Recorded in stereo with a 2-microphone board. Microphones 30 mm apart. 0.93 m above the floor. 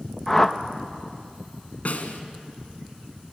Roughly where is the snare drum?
Left.